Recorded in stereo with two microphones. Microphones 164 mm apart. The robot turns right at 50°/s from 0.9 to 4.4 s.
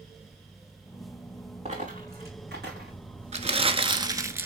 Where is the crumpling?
75° right, 1.1 m; by 4.5 s 20° right, 1.1 m.